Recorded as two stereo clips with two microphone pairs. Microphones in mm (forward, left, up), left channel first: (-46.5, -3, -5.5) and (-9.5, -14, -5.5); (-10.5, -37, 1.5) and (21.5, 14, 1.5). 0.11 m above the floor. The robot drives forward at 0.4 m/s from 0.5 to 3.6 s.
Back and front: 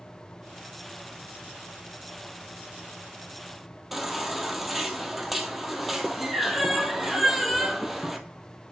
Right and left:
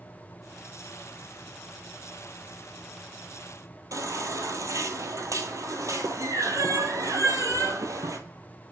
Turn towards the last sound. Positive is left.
turn(degrees=70)